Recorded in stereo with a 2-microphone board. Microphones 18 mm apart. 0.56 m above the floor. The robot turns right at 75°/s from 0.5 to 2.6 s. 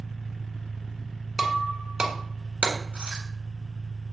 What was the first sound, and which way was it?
An engine running, 150° right.